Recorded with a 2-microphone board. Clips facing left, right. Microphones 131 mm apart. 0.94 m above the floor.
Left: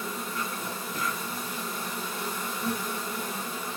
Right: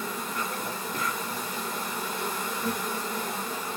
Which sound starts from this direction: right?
An insect, at 0.0 s.